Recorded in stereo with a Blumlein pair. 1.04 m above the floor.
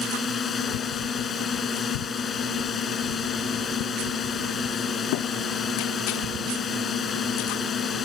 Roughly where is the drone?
Ahead.